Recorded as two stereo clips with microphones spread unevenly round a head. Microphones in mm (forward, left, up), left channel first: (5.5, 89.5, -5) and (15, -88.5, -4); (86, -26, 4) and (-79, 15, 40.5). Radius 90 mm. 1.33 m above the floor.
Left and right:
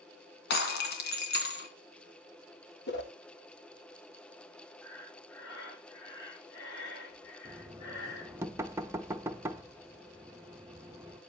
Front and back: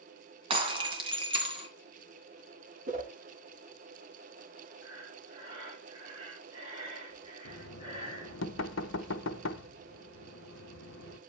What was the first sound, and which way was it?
Breaking glass, 115° left.